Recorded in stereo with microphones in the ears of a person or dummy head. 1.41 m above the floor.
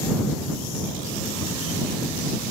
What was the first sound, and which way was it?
Only background noise.